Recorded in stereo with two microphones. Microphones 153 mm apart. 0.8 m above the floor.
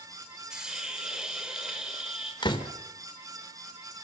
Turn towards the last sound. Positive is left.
turn(degrees=30)  # may be behind; listen again after turning